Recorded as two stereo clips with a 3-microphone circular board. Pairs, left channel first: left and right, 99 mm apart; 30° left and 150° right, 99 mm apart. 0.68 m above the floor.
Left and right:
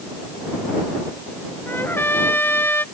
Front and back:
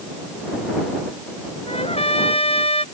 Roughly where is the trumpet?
Ahead.